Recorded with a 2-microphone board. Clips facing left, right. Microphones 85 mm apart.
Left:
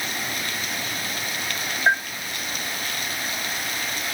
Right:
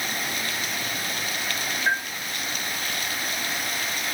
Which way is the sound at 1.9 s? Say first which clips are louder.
Left 5 dB; 40° left (ahead or behind).